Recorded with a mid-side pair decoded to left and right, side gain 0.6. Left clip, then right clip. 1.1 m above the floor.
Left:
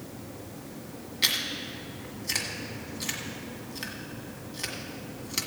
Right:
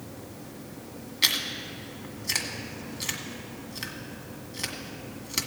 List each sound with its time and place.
1.2 s chewing: 10° right, 1.7 m